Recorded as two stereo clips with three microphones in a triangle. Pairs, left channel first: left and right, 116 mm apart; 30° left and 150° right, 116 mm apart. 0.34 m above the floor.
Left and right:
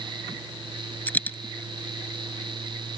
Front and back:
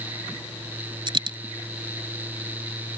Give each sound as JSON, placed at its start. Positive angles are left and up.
{"t": 1.1, "sound": "a dropped coin", "azimuth_deg": 165}